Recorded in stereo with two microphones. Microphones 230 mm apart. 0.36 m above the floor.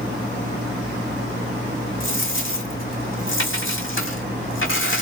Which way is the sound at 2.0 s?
65° left (ahead or behind).